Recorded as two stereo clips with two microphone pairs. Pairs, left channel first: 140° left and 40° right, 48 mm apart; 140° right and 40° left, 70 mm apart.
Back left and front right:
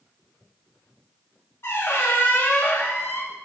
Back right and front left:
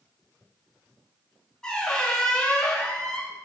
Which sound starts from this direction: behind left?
A squeak, at 1.6 s.